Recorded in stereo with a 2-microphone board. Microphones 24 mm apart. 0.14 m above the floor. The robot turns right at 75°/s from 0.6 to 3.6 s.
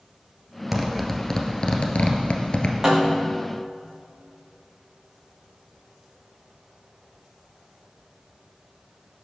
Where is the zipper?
10° right (ahead or behind), 1.9 m; by 2.7 s 35° left (ahead or behind), 1.9 m.